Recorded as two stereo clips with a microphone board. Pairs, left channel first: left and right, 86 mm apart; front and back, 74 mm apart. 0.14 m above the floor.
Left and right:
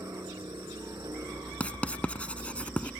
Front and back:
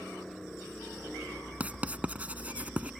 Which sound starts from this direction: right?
A helicopter, at 0.0 s.